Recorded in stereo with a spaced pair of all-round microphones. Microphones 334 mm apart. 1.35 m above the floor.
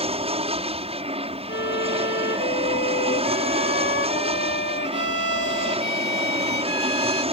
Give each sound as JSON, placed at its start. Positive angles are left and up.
{"t": 0.0, "sound": "an aircraft", "side_deg": -15}
{"t": 1.5, "sound": "a violin", "side_deg": 35}